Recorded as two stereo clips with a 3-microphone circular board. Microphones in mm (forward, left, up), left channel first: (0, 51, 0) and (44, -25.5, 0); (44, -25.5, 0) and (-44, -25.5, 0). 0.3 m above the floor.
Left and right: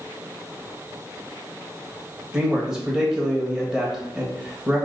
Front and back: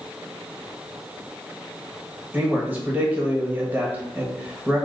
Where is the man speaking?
135° right, 1.1 m.